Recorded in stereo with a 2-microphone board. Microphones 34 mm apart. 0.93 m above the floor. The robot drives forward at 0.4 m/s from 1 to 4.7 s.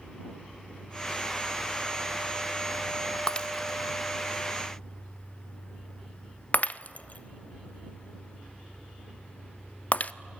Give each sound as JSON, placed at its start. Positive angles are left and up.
{"t": 3.3, "sound": "breaking glass", "side_deg": 25, "distance_m": 1.0}